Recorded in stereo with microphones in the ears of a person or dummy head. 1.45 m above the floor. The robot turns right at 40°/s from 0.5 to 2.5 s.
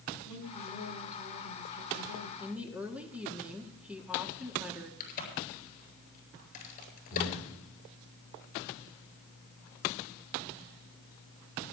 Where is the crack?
45° left (ahead or behind), 7 m.